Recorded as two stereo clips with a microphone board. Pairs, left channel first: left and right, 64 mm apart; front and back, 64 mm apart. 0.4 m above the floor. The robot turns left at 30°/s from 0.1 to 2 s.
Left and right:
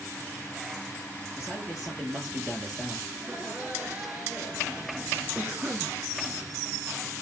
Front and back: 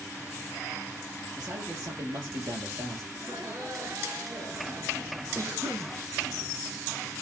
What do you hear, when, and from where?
1.4 s a man speaking: 155° right, 7 m; by 3.0 s 175° right, 7 m
3.1 s laughter: 155° right, 7 m
5.3 s a cough: 145° right, 4 m